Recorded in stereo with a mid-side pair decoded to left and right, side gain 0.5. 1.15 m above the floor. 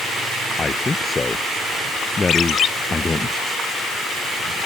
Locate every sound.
0.6 s a man speaking: 25° left
2.3 s a ringtone: 55° left